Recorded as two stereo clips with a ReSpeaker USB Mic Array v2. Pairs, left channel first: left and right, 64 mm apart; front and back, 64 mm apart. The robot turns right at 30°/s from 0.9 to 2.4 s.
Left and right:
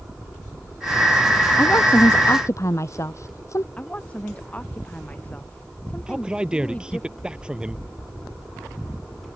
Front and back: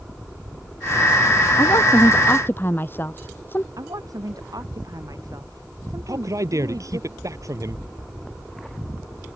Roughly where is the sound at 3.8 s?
Behind.